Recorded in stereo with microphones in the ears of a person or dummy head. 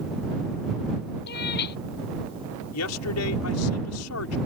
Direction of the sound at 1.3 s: 55° left (ahead or behind).